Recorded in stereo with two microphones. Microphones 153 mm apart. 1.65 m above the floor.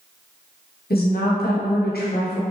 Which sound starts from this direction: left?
A woman speaking, at 0.9 s.